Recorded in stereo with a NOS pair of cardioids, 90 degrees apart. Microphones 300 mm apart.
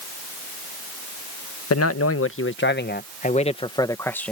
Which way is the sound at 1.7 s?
55° left.